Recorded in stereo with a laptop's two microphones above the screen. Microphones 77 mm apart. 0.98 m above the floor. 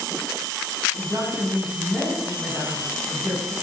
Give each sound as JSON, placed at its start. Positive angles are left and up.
{"t": 1.0, "sound": "a woman speaking", "side_deg": -35, "distance_m": 7.5}